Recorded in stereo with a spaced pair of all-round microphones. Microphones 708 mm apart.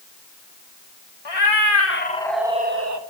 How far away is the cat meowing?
About 1.1 m.